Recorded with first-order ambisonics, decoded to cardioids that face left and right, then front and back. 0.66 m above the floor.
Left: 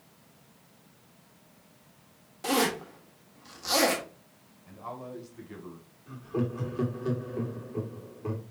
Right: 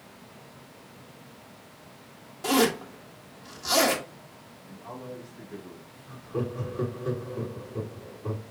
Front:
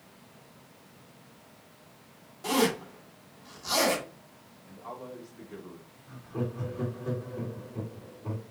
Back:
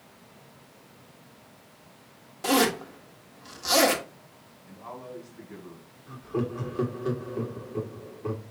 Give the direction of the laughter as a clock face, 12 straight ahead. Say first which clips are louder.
Even, back 5 dB; 7 o'clock.